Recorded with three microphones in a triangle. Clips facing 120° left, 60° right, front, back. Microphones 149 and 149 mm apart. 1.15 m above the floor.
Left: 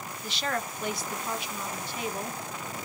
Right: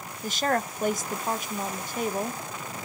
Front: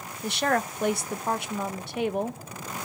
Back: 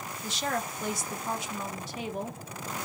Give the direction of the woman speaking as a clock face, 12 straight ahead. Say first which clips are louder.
Right 6 dB, front 7 dB; 1 o'clock.